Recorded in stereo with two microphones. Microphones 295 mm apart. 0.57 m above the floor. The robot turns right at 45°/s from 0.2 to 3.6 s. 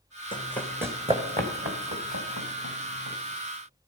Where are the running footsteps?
15° left (ahead or behind), 1.7 m; by 3.2 s 65° right (ahead or behind), 3.5 m.